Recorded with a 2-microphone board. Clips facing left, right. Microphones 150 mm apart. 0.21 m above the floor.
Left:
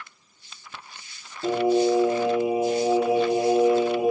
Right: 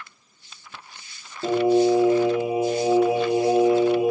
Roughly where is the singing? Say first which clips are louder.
Right 2 dB; right.